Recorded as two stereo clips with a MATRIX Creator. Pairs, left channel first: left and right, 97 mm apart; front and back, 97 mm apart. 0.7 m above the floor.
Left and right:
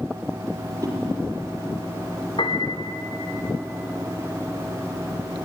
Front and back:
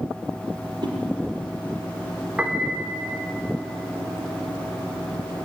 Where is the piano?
105° left, 1.7 m.